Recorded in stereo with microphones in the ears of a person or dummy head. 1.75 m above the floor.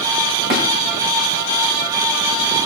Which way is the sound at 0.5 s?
25° right (ahead or behind).